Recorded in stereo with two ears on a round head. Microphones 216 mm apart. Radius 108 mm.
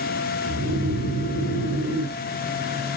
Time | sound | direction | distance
0.5 | snoring | 50° right (ahead or behind) | 2.5 m